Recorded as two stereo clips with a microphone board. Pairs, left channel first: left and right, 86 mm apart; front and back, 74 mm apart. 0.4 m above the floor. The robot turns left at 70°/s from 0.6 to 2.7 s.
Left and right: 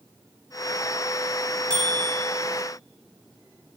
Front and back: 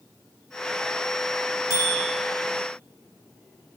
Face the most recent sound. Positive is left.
turn(degrees=150)